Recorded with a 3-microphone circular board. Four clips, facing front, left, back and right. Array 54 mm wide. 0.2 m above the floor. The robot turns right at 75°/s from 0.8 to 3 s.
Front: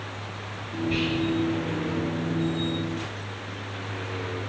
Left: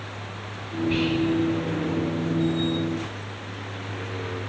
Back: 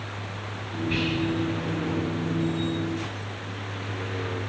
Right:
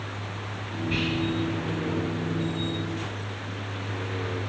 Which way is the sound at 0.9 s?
145° left.